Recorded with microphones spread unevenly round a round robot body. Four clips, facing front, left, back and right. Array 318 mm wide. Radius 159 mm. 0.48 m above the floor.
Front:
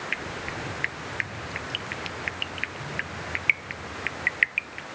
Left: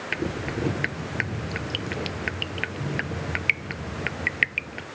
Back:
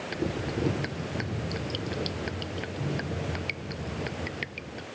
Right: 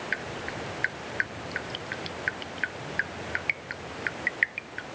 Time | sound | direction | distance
0.1 | dripping | 125° left | ?